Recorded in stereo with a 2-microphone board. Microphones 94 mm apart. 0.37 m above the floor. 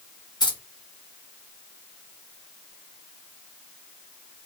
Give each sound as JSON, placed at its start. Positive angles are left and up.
{"t": 0.4, "sound": "keys jangling", "side_deg": 50, "distance_m": 1.5}